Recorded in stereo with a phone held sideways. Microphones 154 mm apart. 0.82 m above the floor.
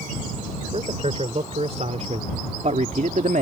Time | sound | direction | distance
0.7 | a man speaking | 40° right (ahead or behind) | ?